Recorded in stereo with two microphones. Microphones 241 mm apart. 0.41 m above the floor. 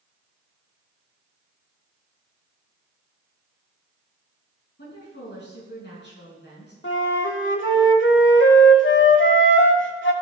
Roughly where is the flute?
Left.